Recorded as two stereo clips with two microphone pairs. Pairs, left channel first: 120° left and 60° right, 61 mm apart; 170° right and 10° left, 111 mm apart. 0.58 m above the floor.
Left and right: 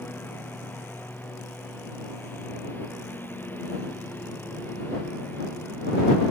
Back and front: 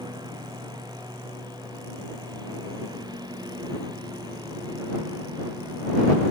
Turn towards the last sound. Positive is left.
turn(degrees=65)